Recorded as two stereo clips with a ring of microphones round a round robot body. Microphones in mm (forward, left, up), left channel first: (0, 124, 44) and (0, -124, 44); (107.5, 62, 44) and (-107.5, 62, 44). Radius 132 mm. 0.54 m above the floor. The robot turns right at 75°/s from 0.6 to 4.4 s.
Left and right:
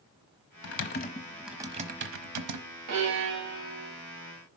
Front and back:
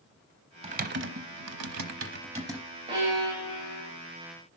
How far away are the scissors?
No scissors in this recording.